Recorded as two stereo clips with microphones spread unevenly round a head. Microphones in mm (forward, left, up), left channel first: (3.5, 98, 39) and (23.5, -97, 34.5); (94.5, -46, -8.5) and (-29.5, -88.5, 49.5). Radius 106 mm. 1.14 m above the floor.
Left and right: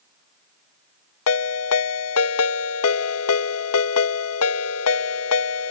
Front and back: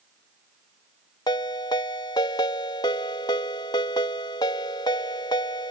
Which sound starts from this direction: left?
A ringtone, at 1.3 s.